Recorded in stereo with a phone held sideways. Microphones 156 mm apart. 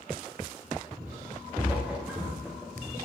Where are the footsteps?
10° right (ahead or behind), 5.5 m; by 3.0 s centre (ahead or behind), 3 m.